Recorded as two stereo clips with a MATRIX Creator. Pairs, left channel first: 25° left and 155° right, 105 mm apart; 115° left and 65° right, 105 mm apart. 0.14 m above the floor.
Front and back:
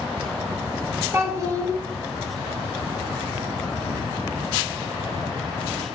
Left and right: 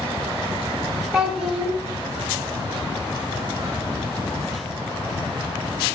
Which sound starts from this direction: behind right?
A child speaking, at 1.1 s.